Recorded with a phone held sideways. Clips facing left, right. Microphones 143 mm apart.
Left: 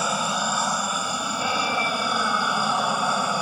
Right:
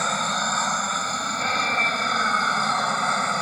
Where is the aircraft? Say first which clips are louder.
Left 1 dB; 10° left (ahead or behind).